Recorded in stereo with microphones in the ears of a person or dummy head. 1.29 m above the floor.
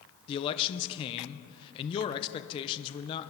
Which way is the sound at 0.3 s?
25° left (ahead or behind).